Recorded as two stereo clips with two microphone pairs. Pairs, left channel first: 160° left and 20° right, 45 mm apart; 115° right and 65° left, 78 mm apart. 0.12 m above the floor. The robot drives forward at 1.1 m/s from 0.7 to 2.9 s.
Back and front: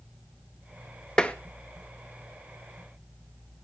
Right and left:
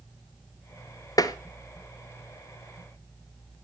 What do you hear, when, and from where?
1.2 s tapping: 135° right, 1.0 m; by 1.4 s 140° right, 1.1 m